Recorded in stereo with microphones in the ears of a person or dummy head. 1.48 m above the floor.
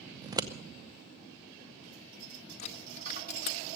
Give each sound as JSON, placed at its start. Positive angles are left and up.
{"t": 0.2, "sound": "scissors", "side_deg": -20, "distance_m": 0.7}
{"t": 2.6, "sound": "a dropped coin", "side_deg": 40, "distance_m": 1.7}